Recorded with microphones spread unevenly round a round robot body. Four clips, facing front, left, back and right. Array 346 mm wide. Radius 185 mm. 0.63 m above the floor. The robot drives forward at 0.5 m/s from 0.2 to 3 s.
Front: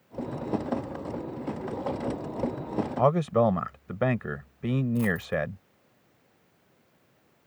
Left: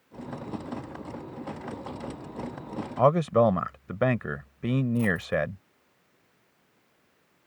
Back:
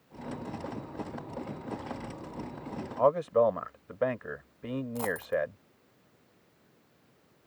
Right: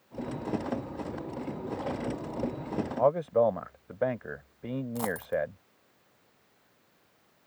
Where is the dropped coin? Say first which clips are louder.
Left 4 dB, front 3 dB; 70° right.